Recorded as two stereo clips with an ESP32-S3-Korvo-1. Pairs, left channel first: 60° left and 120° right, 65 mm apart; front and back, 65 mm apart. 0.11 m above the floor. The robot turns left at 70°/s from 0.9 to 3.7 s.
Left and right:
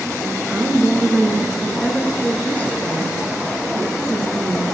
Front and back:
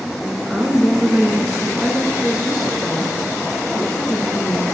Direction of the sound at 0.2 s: 150° right.